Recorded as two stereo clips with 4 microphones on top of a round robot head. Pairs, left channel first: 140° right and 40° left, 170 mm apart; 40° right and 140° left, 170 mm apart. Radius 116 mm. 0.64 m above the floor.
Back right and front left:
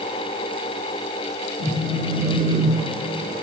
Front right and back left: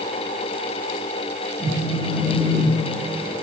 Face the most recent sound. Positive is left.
turn(degrees=35)